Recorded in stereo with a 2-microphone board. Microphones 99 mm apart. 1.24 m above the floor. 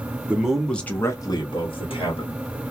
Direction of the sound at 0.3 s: 15° right (ahead or behind).